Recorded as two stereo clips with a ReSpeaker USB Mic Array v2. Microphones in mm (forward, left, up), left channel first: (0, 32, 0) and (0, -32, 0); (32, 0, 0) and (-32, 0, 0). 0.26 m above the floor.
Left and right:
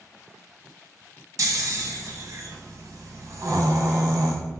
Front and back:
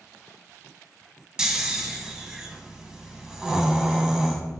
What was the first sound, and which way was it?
Snoring, 100° right.